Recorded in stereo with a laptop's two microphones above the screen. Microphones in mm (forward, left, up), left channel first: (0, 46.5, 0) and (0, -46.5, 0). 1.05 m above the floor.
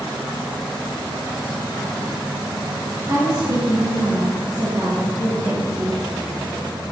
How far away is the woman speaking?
About 1.9 m.